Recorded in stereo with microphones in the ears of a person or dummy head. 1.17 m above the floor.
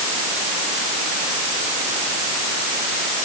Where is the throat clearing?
No throat clearing in this recording.